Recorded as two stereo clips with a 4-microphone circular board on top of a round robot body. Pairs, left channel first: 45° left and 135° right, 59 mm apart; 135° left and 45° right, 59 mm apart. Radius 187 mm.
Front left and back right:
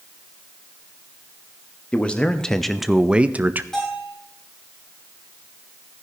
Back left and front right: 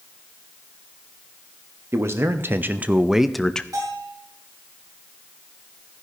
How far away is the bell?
About 5.5 m.